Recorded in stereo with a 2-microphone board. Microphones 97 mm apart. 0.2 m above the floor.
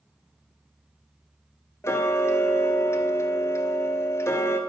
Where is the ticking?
25° left (ahead or behind), 0.7 m.